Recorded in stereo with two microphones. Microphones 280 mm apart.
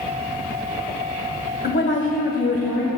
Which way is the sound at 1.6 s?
40° left (ahead or behind).